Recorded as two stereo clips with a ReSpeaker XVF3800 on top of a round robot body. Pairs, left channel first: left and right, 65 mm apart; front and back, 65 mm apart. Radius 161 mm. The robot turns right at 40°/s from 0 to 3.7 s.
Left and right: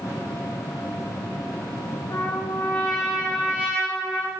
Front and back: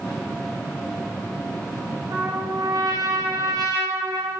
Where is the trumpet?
140° left, 4 m; by 4.3 s 160° right, 4 m.